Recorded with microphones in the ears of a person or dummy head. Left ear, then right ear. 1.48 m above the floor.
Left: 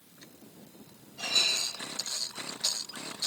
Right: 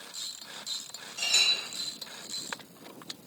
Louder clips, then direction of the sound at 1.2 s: Right 2 dB; 70° right (ahead or behind).